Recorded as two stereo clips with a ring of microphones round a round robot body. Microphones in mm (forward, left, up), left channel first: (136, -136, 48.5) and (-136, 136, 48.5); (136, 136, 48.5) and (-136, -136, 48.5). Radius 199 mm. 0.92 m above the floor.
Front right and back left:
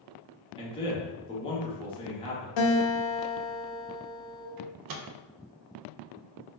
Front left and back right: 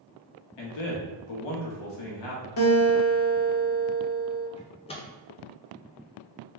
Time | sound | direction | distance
0.6 | a man speaking | 30° left | 1.3 m
2.6 | a guitar | 10° right | 1.0 m
4.6 | a microwave | 120° left | 0.6 m